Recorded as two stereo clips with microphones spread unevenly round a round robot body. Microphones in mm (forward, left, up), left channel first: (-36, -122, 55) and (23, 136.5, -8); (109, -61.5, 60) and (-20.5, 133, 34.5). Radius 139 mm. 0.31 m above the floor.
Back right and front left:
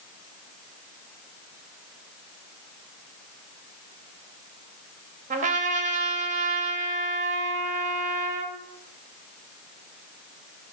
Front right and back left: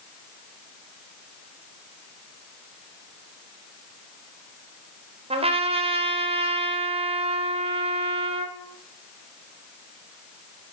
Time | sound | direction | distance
5.3 | a trumpet | 85° left | 0.7 m